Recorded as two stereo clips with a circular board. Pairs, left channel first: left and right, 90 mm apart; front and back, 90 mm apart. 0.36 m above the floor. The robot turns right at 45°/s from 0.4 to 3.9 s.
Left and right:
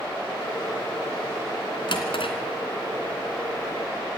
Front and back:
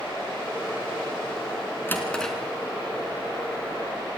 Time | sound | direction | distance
1.9 | a drawer | 65° left | 2.5 m